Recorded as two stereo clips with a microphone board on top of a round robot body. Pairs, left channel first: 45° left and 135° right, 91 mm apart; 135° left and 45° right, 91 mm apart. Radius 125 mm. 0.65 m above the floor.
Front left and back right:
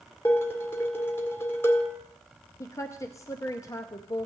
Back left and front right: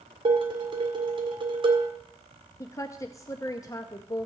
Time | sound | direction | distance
0.2 | dishes clattering | 20° right | 1.7 m
2.6 | a woman speaking | 90° left | 0.8 m